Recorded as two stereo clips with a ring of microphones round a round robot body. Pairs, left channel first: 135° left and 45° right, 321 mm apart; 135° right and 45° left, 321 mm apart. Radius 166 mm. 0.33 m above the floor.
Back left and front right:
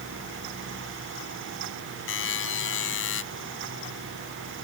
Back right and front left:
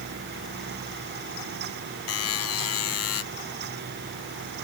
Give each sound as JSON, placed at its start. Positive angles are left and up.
{"t": 2.1, "sound": "a buzzer", "azimuth_deg": -175}